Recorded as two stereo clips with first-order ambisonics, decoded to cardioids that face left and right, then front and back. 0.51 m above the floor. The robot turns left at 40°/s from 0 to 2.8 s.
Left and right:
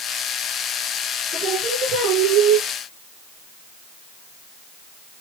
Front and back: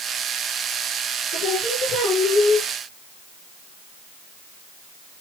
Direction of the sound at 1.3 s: 40° right.